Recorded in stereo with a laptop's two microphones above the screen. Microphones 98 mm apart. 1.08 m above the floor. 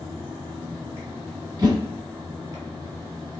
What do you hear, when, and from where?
0.0 s a fan: 40° right (ahead or behind), 1.8 m
1.6 s a whoosh: 40° right (ahead or behind), 1.5 m